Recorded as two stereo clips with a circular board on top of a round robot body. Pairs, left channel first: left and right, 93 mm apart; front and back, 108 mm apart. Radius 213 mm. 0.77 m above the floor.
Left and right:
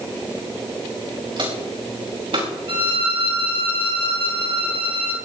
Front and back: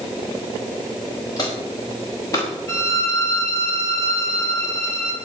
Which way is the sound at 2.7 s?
60° right.